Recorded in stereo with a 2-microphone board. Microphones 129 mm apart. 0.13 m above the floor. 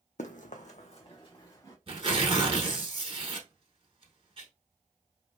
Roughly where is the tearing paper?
Right.